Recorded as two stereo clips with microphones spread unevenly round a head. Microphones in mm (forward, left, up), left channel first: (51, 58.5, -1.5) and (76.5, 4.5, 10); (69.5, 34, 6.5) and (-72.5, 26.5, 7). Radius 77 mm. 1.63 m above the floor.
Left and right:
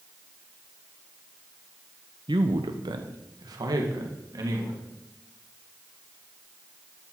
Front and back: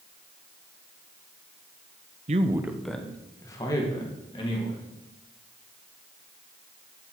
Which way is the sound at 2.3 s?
125° right.